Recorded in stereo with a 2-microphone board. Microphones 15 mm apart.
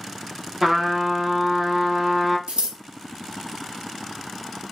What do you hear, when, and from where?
0.6 s a trumpet: 25° right (ahead or behind), 1.4 m
2.5 s scissors: 80° right, 1.0 m